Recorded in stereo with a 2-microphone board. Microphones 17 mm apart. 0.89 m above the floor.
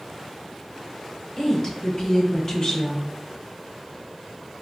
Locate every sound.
1.4 s a woman speaking: 40° left (ahead or behind), 0.7 m